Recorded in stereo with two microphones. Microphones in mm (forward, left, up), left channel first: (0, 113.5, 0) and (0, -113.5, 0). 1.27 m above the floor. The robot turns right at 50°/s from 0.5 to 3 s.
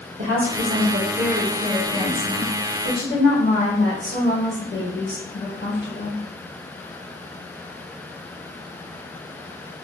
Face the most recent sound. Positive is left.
turn(degrees=55)